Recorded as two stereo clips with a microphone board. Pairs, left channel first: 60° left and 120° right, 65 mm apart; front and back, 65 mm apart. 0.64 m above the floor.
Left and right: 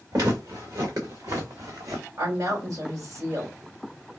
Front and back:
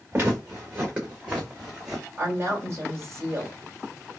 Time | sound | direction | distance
0.1 | footsteps | 125° right | 2.5 m
2.2 | a woman speaking | 135° right | 2 m